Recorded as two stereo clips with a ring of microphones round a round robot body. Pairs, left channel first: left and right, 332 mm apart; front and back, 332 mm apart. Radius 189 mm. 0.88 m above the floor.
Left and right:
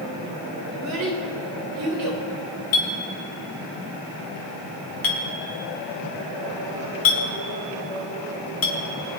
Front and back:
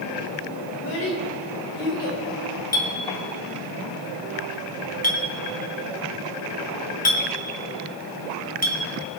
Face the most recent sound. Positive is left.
turn(degrees=65)